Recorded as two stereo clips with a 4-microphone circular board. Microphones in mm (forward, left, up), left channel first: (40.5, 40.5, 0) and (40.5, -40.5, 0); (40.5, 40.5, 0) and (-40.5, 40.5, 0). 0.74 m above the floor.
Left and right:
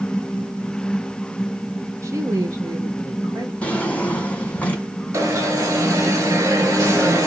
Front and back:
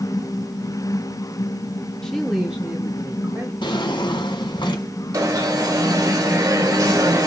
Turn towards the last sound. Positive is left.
turn(degrees=-140)